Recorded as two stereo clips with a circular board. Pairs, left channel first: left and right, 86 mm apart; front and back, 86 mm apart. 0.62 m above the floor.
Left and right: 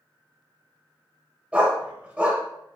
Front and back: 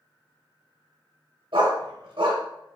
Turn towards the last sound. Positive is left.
turn(degrees=-165)